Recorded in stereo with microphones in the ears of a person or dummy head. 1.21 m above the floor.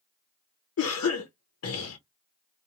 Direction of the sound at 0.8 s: 70° left (ahead or behind).